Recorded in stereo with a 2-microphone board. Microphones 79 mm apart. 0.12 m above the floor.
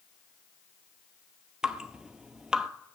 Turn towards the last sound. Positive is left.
turn(degrees=-10)  # may be behind; listen again after turning